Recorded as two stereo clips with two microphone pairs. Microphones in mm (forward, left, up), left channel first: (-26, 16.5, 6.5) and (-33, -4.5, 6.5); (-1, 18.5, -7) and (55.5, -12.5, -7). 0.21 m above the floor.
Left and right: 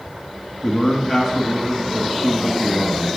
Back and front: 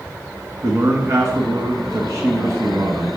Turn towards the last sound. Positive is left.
turn(degrees=-20)